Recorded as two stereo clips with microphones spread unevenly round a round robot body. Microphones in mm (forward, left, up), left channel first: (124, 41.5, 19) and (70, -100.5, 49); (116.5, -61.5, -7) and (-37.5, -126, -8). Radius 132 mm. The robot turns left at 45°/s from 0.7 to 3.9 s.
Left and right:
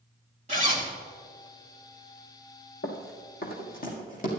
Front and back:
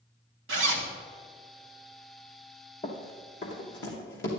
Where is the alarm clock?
No alarm clock in this recording.